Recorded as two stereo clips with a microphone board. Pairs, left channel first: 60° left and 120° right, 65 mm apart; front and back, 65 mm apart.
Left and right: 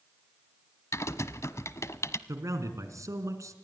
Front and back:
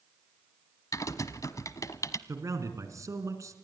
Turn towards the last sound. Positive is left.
turn(degrees=-150)